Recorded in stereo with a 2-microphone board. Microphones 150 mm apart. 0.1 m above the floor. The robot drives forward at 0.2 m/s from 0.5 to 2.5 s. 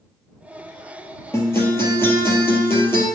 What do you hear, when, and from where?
1.3 s a guitar: 15° left (ahead or behind), 2.5 m